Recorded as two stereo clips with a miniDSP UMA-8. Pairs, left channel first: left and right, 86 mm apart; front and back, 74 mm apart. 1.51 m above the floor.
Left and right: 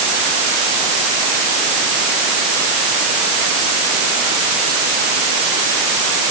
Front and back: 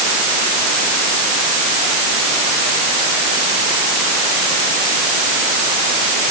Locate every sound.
Only background noise.